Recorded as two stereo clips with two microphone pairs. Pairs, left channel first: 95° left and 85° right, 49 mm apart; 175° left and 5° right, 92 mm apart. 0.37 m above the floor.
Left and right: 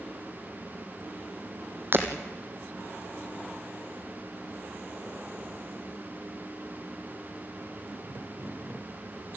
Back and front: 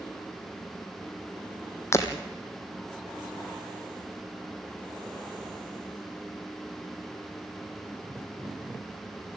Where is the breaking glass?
125° right, 2.5 m.